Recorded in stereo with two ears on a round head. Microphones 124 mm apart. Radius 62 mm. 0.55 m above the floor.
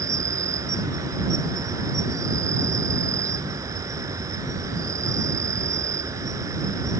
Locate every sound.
0.0 s an insect: 25° right (ahead or behind)